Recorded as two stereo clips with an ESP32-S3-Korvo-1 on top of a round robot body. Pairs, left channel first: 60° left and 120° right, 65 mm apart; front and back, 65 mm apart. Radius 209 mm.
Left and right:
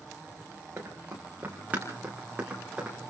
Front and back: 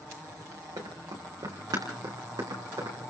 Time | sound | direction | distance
0.8 | running footsteps | straight behind | 6.5 m